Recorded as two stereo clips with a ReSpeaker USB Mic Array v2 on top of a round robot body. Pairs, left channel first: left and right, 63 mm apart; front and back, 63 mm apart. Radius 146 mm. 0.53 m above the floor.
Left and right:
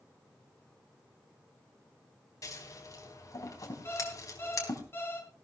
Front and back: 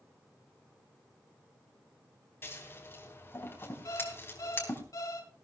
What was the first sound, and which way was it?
Scissors, 55° left.